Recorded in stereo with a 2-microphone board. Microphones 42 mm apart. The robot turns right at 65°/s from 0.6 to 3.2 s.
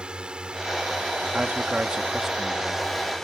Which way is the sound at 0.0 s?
150° right.